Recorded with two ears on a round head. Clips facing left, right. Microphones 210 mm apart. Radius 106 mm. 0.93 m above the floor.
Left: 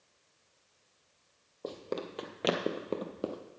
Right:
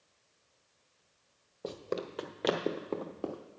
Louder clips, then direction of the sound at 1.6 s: Right 1 dB; 10° right (ahead or behind).